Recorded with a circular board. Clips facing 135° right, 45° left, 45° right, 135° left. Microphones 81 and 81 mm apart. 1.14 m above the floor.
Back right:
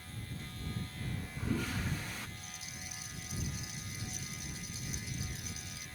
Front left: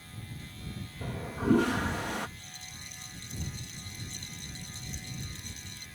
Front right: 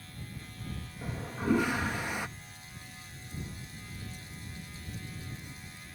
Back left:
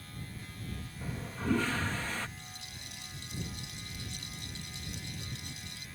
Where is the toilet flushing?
30° left.